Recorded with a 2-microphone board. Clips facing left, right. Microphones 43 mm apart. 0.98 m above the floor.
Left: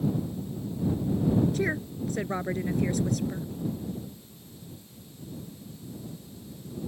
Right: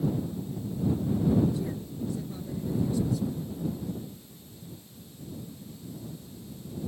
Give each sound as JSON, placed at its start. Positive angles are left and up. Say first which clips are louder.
{"t": 1.5, "sound": "a woman speaking", "louder": "left 5 dB", "side_deg": 70}